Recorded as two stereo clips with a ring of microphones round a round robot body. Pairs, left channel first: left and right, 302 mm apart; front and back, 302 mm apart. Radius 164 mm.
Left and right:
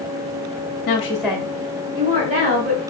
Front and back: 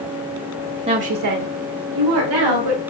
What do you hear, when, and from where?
0.9 s a woman speaking: 125° left, 0.7 m; by 2.8 s 150° right, 3 m